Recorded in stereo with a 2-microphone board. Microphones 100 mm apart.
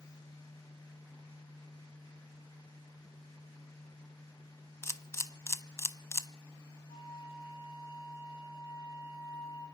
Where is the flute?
70° left (ahead or behind), 6 m.